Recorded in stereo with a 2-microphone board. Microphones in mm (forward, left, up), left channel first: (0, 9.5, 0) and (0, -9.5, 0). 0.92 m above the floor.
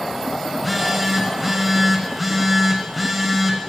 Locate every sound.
0.5 s a phone buzzing: 10° right (ahead or behind), 0.8 m